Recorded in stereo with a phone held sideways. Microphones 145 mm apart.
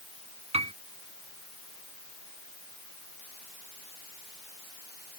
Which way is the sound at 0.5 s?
45° right (ahead or behind).